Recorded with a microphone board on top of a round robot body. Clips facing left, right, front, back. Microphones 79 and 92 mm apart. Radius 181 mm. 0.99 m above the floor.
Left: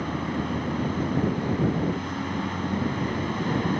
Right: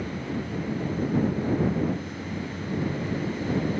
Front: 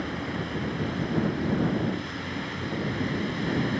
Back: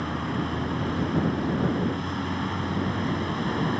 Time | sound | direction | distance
0.0 | a vehicle | 125° left | ?